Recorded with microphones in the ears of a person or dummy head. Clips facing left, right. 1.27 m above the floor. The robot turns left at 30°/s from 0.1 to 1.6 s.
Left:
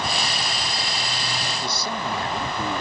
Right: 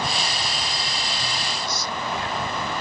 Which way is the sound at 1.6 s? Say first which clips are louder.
Left 2 dB; 30° left (ahead or behind).